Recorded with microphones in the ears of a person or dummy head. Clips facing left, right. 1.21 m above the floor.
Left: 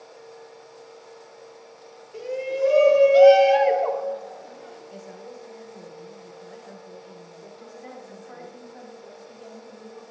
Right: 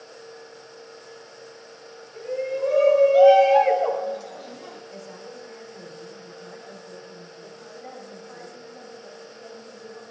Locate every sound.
2.1 s a shout: 55° left (ahead or behind), 3 m; by 4.8 s 70° right (ahead or behind), 1.7 m
4.9 s a woman speaking: 15° left (ahead or behind), 3.5 m
7.6 s a woman speaking: 50° left (ahead or behind), 4.5 m